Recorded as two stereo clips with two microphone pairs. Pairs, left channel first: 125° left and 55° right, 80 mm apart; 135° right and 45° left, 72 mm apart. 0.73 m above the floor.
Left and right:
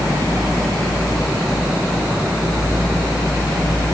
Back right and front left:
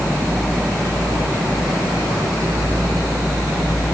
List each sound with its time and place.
Only background noise.